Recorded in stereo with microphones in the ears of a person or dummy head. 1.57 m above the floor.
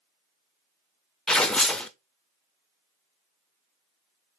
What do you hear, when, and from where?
1.3 s tearing paper: 10° left (ahead or behind), 0.5 m